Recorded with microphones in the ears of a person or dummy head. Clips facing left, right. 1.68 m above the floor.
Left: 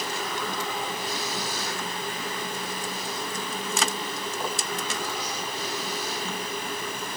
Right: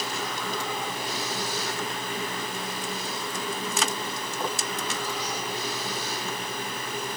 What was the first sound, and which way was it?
Only background noise.